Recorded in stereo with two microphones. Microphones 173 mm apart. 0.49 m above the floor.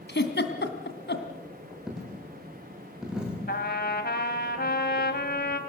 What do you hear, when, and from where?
0.1 s a giggle: 85° left, 2 m
1.9 s a dropped coin: 5° right (ahead or behind), 7.5 m
3.5 s a trumpet: 65° left (ahead or behind), 2 m